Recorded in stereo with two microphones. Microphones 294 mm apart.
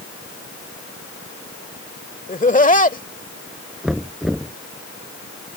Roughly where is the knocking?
Centre.